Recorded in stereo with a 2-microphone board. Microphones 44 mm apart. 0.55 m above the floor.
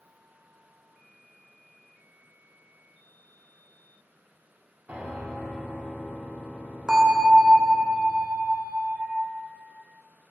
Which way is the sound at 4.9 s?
45° right (ahead or behind).